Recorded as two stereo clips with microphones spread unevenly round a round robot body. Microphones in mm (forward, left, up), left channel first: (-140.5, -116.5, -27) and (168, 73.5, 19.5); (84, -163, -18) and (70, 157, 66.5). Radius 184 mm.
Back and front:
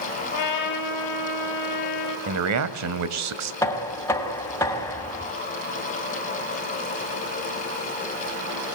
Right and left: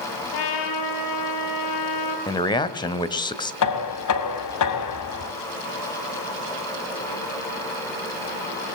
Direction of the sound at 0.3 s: 110° right.